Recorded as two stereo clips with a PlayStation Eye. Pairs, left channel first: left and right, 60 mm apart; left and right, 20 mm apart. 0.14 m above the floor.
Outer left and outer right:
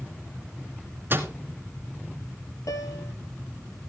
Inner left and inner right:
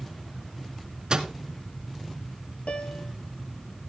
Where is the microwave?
40° right (ahead or behind), 1.0 m.